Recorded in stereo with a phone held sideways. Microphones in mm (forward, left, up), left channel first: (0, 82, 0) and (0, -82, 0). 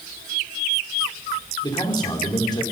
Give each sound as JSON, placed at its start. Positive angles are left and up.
{"t": 1.6, "sound": "a man speaking", "side_deg": 25, "distance_m": 4.5}